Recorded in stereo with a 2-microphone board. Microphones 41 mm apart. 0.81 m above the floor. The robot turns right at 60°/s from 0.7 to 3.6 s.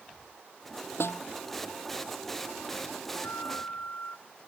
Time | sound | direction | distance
1.0 | a snare drum | 75° left (ahead or behind) | ?
3.1 | a flute | 75° left (ahead or behind) | ?